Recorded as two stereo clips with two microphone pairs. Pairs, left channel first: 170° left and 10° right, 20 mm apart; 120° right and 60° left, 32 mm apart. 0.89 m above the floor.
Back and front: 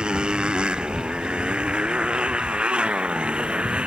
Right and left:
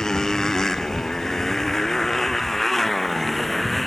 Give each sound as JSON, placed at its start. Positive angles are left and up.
{"t": 0.0, "sound": "a motorcycle", "azimuth_deg": -50}